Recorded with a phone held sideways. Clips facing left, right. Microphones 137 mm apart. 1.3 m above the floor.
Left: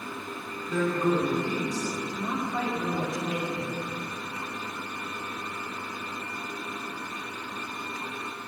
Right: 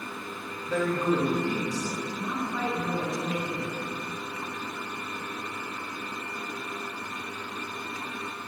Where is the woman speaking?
25° left (ahead or behind), 2 m.